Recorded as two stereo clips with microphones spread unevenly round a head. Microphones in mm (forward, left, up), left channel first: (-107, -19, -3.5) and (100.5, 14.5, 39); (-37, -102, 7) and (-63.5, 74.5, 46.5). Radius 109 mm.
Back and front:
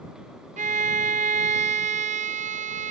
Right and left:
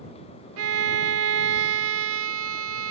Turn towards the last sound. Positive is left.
turn(degrees=70)